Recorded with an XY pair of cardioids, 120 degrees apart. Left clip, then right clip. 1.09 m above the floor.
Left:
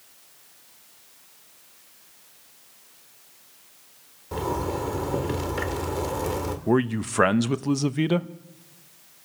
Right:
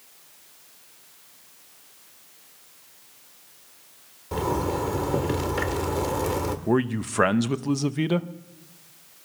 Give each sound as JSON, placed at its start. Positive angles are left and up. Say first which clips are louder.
{"t": 4.3, "sound": "a zipper", "louder": "right 2 dB", "azimuth_deg": -5, "distance_m": 1.5}
{"t": 6.7, "sound": "a man speaking", "louder": "left 3 dB", "azimuth_deg": 10, "distance_m": 0.7}